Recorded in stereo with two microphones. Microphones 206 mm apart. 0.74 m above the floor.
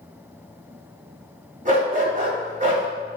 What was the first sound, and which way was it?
A dog barking, 35° right (ahead or behind).